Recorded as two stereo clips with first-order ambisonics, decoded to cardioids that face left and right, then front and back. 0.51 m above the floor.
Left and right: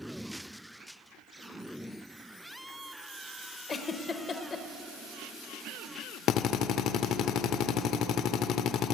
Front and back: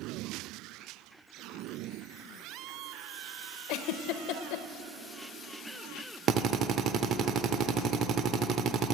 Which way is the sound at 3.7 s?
25° left.